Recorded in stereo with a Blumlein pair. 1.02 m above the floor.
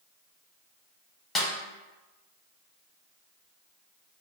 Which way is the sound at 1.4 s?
10° left.